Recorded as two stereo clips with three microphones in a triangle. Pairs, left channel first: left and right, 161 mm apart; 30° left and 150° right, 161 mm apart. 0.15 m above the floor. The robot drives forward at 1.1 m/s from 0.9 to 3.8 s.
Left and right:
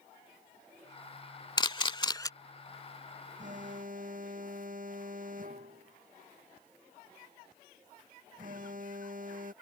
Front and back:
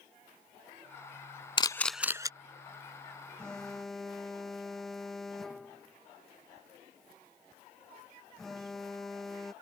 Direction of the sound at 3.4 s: 55° right.